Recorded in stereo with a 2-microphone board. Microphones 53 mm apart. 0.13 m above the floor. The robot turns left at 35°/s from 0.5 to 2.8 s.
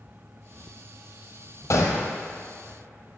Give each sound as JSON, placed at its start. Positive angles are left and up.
{"t": 1.7, "sound": "a gunshot", "side_deg": 65, "distance_m": 1.2}